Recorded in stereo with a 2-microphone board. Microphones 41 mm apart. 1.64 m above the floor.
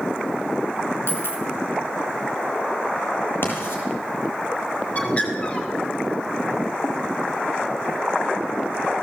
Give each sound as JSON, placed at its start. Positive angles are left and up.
{"t": 1.1, "sound": "a dropped coin", "side_deg": 70, "distance_m": 4.5}
{"t": 3.4, "sound": "writing", "side_deg": 65, "distance_m": 7.0}
{"t": 5.0, "sound": "a bird", "side_deg": 35, "distance_m": 3.5}